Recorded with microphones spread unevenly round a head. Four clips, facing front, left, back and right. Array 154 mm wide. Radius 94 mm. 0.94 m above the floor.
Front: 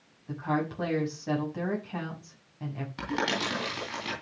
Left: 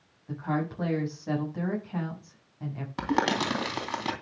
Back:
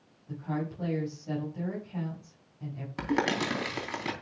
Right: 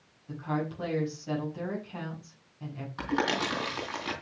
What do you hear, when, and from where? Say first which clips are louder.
0.3 s a woman speaking: left 2 dB, front 5 dB; 20° left, 6.5 m
3.0 s crumpling: left 3 dB, back 2 dB; 135° left, 3 m